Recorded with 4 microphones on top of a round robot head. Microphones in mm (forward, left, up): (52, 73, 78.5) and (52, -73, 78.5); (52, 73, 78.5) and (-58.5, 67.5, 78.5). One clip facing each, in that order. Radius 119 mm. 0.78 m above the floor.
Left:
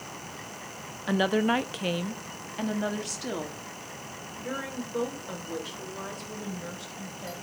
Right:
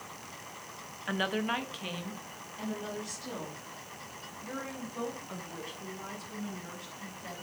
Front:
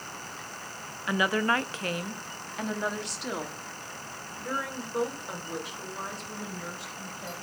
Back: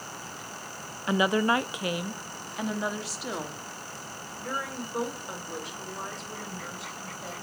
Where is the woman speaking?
130° left, 0.6 m; by 7.4 s 90° left, 4 m.